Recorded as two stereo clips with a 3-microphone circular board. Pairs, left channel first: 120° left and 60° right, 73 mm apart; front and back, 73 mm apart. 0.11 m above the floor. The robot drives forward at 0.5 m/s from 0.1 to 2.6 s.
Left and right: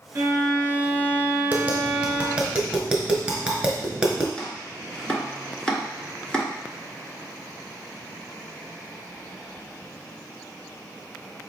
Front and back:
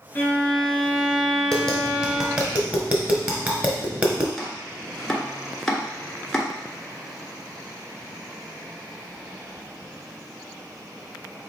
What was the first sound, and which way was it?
A violin, 45° right.